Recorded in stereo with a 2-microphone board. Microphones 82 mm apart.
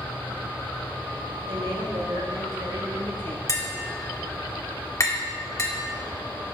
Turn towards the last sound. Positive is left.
turn(degrees=40)  # may be behind; listen again after turning